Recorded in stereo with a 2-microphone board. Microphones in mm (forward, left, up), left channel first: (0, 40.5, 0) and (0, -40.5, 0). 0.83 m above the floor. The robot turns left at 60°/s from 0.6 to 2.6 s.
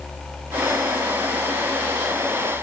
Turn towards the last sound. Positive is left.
No sound to turn to.